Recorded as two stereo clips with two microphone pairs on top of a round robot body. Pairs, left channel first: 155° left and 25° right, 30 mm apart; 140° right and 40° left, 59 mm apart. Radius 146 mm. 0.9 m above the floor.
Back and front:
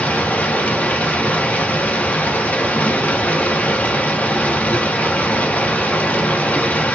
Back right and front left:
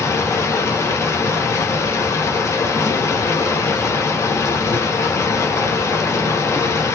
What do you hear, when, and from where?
0.0 s running water: 170° right, 0.9 m